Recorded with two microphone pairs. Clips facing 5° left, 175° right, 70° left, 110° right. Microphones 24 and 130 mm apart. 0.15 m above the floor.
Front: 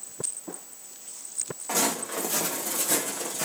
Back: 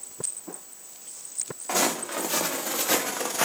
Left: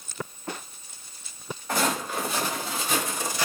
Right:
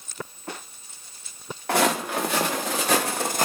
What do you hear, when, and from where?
1.7 s footsteps: 100° right, 1.7 m; by 3.5 s 150° right, 0.6 m